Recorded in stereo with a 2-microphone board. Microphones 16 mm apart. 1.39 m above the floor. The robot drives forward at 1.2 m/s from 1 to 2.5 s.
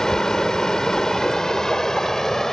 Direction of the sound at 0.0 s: 45° left (ahead or behind).